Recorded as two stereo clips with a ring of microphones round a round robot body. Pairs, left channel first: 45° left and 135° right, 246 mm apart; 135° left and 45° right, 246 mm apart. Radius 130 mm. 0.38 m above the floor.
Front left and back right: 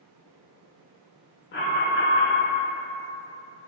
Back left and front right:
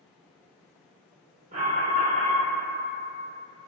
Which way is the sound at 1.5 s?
10° left.